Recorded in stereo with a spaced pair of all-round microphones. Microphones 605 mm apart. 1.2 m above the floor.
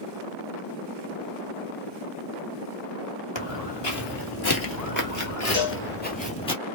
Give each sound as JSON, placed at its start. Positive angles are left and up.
{"t": 3.4, "sound": "footsteps", "side_deg": 45, "distance_m": 1.7}
{"t": 5.5, "sound": "a cowbell", "side_deg": 80, "distance_m": 2.5}